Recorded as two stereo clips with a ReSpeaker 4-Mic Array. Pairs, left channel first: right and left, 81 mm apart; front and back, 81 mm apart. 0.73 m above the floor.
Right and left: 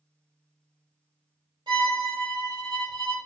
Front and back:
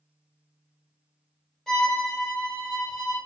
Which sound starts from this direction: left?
A violin, at 1.7 s.